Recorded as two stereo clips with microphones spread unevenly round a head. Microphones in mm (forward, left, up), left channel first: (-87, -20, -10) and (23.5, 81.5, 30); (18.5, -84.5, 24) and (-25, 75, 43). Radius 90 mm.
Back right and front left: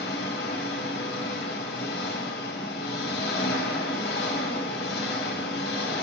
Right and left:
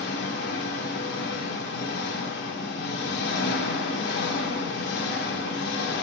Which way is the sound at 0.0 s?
95° right.